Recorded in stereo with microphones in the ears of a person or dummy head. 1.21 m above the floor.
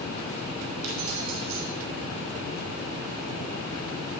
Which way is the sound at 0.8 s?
85° right.